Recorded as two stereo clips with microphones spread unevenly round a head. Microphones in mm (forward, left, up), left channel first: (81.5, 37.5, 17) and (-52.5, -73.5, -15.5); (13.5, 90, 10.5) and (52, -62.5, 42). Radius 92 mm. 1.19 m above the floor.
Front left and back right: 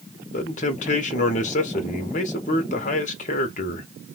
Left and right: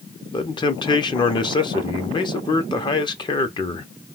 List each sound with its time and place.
0.3 s a man speaking: 85° left, 0.8 m